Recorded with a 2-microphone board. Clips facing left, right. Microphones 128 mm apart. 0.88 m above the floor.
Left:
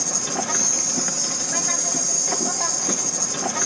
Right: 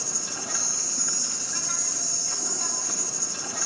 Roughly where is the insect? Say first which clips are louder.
Left 10 dB; left.